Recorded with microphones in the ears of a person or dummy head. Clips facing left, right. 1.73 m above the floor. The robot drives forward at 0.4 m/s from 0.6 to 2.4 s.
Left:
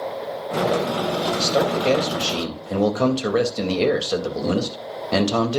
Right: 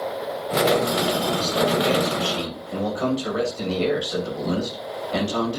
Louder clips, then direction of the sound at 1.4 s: Left 2 dB; 75° left (ahead or behind).